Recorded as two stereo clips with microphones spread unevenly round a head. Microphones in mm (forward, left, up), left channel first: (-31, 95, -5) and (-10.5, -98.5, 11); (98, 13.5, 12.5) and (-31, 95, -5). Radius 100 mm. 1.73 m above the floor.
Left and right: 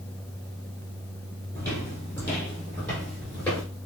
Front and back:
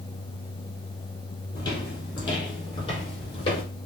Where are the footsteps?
15° left, 3 m; by 3.6 s 10° left, 4 m.